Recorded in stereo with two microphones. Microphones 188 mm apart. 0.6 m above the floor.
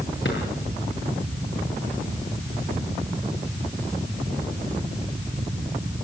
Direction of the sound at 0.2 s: 75° left (ahead or behind).